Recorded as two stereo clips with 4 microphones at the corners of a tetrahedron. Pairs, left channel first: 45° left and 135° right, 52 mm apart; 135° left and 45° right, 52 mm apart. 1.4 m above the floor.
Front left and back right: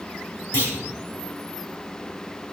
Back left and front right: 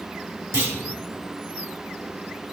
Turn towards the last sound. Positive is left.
turn(degrees=-10)